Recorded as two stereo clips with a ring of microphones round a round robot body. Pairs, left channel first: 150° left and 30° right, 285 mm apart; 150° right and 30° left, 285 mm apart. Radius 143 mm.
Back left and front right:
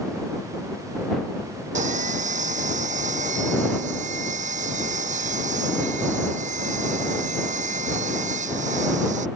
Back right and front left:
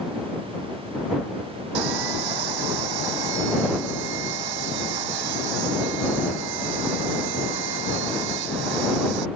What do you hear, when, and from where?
1.8 s sawing: 35° left